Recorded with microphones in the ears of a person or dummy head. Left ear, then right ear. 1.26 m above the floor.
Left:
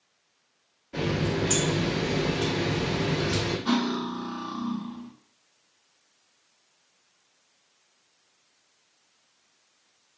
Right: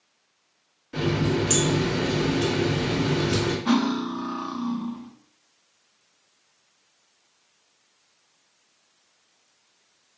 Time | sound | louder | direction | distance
0.9 | a running tap | right 3 dB | 20° right (ahead or behind) | 1.3 m
3.6 | cutlery clinking | right 3 dB | 10° right (ahead or behind) | 0.6 m